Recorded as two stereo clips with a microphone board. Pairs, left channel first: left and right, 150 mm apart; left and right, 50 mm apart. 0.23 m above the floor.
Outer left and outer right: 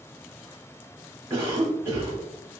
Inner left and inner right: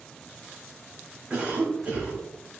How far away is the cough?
About 1.0 m.